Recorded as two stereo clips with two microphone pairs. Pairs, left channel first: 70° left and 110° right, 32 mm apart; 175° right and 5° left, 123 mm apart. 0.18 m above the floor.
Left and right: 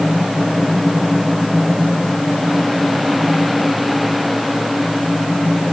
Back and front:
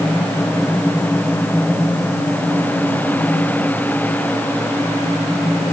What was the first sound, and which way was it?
Only background noise.